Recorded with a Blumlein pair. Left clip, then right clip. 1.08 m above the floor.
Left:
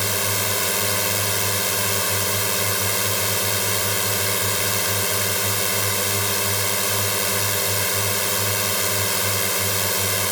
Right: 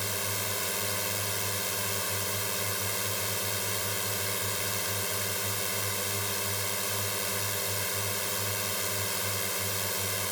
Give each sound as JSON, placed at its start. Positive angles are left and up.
{"t": 0.0, "sound": "a drone", "azimuth_deg": 25}